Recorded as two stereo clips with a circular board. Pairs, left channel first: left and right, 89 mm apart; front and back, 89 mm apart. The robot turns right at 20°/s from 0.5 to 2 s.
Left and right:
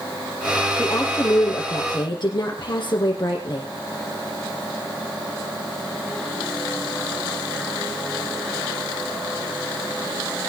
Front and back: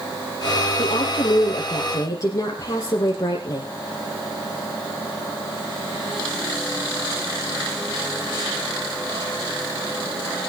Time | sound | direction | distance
0.8 | a woman speaking | 30° left | 6.5 m